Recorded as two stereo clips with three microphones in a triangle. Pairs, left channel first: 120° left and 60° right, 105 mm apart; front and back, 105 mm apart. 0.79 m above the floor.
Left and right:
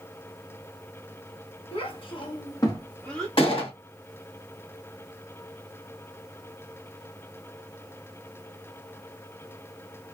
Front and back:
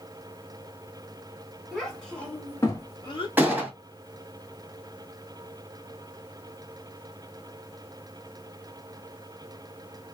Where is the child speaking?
90° left, 1.0 m; by 3.3 s 35° left, 0.7 m.